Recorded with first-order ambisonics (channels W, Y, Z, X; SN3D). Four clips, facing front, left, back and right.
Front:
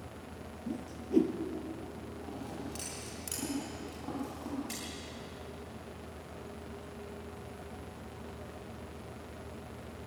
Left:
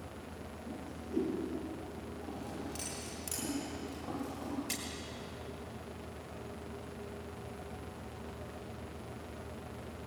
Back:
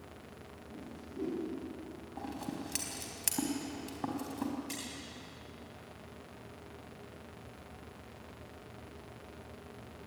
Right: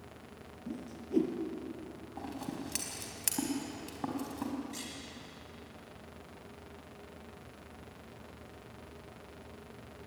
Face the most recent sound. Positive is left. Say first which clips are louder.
# left 3 dB, even
turn(degrees=90)